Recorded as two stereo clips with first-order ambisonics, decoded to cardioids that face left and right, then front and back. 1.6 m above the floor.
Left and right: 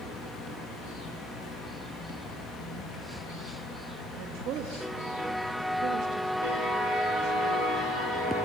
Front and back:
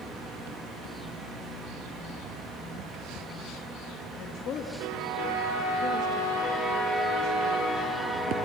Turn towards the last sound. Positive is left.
turn(degrees=-50)